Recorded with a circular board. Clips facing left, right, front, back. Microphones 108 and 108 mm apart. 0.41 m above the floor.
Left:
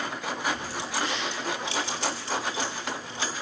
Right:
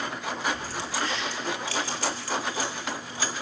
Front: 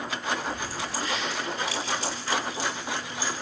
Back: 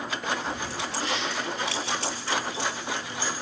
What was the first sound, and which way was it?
Keys jangling, 165° left.